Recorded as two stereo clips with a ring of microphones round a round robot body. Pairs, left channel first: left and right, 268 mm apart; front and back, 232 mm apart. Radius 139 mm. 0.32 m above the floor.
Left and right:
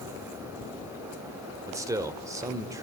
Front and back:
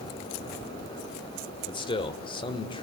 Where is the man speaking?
30° right, 1.1 m.